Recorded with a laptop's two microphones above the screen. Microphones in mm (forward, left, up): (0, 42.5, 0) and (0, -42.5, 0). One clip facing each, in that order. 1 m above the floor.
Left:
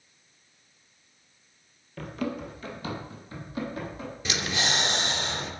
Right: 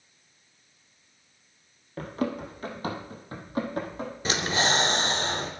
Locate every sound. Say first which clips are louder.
2.0 s running footsteps: right 2 dB; 35° right (ahead or behind), 1.6 m; by 4.1 s 45° right (ahead or behind), 2.5 m
4.2 s breathing: right 4 dB; 35° right (ahead or behind), 0.7 m